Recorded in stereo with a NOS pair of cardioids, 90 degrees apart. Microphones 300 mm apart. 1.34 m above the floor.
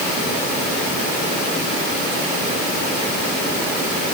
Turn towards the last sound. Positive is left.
No sound to turn to.